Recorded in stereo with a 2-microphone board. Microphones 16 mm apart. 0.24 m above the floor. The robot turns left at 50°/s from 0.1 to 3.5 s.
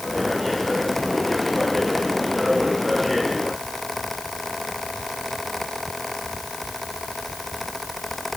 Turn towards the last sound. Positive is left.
No sound to turn to.